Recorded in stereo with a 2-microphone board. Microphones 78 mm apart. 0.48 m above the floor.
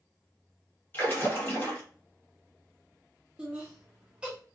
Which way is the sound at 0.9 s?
30° left (ahead or behind).